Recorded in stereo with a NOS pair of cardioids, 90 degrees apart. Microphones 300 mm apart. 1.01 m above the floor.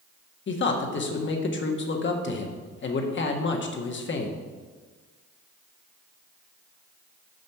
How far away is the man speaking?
About 1.3 m.